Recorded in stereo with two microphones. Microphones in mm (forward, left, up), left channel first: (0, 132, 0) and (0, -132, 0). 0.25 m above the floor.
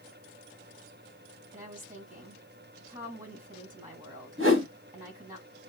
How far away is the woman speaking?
About 2 m.